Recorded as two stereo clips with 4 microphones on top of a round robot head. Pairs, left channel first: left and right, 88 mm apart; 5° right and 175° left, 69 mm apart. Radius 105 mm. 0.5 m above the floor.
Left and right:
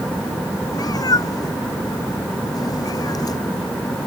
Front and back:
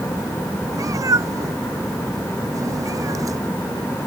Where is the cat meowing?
135° left.